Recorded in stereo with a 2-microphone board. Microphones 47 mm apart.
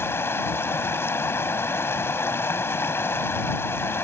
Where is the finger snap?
I don't hear a finger snap.